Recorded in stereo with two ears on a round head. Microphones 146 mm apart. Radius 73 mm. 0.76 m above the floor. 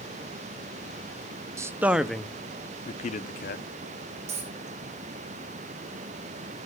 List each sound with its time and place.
1.6 s a man speaking: 20° right (ahead or behind), 0.9 m; by 3.6 s 60° left (ahead or behind), 1.0 m
4.3 s a dropped coin: 40° right (ahead or behind), 5.5 m